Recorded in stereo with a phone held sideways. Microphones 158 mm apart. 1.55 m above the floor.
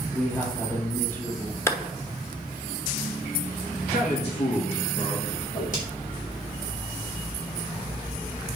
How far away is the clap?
About 1.1 m.